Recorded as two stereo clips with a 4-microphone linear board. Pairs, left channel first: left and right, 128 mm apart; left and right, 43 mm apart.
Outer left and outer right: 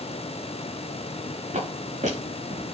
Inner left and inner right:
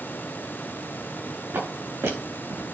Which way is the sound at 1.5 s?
75° right (ahead or behind).